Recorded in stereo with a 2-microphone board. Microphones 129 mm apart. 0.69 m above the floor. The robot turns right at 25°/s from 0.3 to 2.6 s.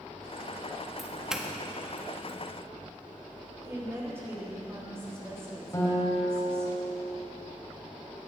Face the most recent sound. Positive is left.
turn(degrees=25)  # may be behind; listen again after turning